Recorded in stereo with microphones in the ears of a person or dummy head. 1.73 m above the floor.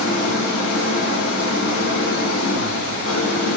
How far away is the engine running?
About 3.5 m.